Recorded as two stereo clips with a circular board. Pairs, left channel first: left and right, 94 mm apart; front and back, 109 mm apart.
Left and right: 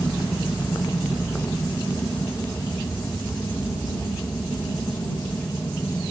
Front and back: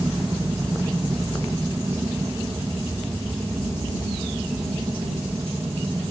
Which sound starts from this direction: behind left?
An aircraft, at 0.0 s.